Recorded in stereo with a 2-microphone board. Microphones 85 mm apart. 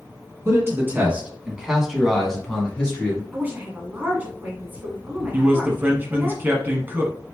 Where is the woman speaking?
25° right (ahead or behind), 1.4 m.